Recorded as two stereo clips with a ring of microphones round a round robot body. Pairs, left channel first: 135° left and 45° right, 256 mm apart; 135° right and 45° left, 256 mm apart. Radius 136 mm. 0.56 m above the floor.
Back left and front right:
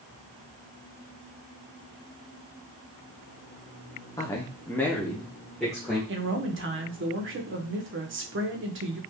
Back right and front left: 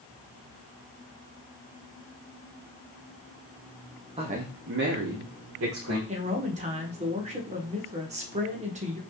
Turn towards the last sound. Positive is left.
turn(degrees=-15)